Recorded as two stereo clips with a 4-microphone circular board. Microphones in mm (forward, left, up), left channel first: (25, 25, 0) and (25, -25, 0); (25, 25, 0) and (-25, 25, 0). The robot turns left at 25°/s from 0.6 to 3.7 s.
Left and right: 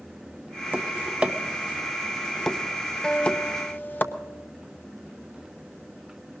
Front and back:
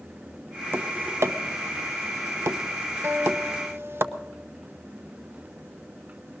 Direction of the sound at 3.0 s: 165° left.